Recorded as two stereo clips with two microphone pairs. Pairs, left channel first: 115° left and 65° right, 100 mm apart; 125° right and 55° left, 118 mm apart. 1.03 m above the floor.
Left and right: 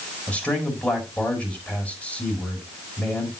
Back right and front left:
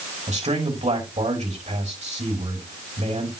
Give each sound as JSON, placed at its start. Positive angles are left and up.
{"t": 0.3, "sound": "a man speaking", "azimuth_deg": 40, "distance_m": 4.5}